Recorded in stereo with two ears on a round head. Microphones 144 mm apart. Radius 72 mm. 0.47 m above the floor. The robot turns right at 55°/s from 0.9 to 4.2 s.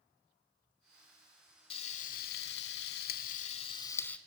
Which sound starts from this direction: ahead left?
Frying, at 1.7 s.